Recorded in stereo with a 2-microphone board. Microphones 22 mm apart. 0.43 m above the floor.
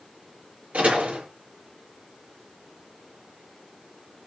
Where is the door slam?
80° right, 9.5 m.